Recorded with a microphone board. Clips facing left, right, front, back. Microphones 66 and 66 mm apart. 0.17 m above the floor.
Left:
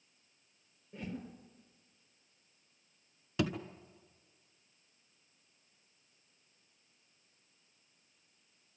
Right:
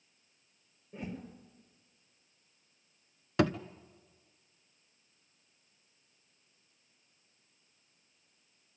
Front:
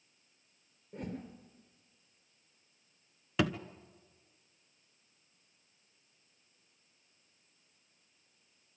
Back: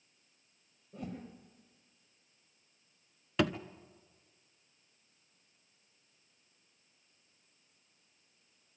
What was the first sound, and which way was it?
A whoosh, 5° right.